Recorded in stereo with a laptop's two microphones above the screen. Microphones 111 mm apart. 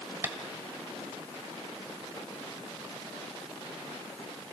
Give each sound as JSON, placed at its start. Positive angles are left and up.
{"t": 0.2, "sound": "tapping", "side_deg": -20, "distance_m": 1.3}